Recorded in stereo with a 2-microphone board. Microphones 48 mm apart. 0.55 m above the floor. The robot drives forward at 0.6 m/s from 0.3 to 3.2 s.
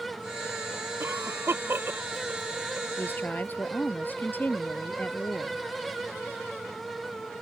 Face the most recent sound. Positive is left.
turn(degrees=40)  # may be behind; listen again after turning